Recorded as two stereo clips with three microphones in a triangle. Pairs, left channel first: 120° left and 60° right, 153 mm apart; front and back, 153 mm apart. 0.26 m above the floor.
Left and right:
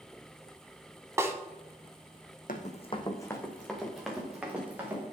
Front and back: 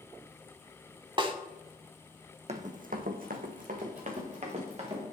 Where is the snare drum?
130° right, 0.6 m.